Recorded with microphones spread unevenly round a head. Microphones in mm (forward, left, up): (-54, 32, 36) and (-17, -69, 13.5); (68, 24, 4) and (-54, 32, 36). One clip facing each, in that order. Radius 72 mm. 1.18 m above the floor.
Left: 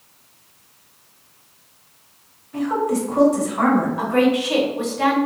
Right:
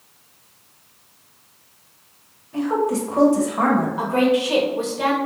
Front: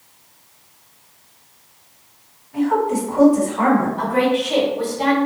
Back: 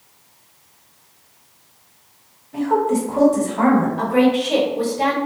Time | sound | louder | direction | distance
2.5 | a woman speaking | even, even | 130° right | 1.2 m
4.0 | a woman speaking | left 1 dB, back 2 dB | 125° right | 1.3 m